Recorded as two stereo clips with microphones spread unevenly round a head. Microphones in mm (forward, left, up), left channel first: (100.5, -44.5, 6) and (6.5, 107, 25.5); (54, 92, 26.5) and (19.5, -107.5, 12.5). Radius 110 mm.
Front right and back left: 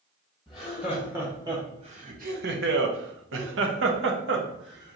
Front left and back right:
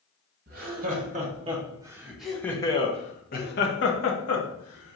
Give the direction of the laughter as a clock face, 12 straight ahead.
5 o'clock.